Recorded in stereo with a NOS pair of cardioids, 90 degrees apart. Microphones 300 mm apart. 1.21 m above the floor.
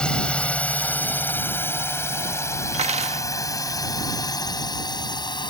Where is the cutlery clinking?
25° right.